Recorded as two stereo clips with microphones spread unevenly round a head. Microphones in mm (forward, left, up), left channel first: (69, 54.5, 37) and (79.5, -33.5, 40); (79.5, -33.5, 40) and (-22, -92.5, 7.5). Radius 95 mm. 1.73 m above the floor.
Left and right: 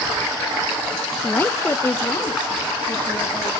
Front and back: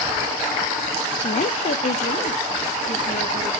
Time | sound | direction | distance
1.2 | a woman speaking | 25° left | 0.6 m